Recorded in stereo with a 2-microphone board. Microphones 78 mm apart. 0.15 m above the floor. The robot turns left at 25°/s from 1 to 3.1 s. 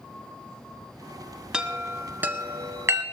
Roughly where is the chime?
Centre.